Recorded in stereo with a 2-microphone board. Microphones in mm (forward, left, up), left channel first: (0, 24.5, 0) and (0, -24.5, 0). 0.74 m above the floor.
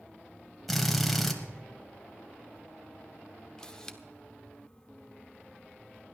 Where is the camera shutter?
15° left (ahead or behind), 1.0 m.